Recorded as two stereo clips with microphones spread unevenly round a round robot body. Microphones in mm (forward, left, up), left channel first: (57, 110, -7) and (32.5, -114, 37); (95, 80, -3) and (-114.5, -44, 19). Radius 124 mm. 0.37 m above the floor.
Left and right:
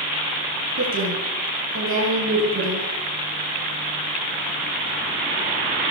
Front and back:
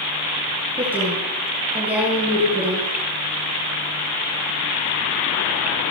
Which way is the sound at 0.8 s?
65° right.